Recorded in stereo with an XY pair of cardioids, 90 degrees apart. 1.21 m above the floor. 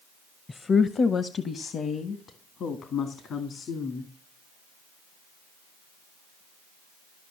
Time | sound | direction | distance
0.5 | a woman speaking | 35° left | 0.6 m